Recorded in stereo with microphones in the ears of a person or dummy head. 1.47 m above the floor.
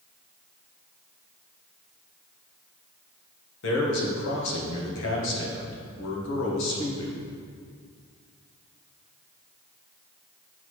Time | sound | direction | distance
3.6 | a man speaking | 70° left (ahead or behind) | 1.7 m